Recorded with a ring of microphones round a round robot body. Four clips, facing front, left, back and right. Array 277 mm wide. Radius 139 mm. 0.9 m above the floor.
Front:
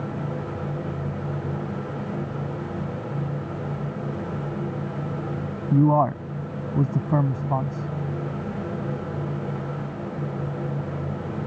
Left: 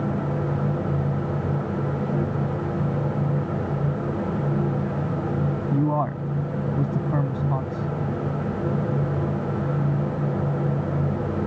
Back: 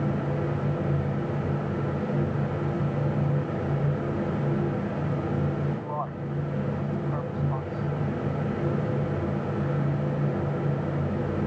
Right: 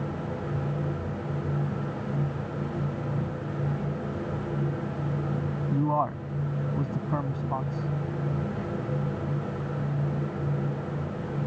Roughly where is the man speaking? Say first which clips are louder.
Left 1 dB, front 12 dB; ahead.